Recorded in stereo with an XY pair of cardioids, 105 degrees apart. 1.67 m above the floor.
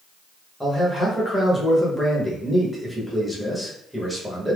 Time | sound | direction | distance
0.6 | a man speaking | straight ahead | 1.0 m